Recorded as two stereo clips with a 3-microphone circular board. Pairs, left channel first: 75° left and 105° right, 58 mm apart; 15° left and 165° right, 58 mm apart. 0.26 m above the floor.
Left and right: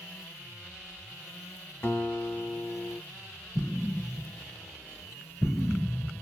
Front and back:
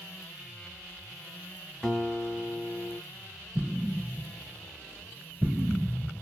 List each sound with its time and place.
1.8 s a guitar: 85° left, 1.0 m
3.5 s an explosion: 110° left, 0.8 m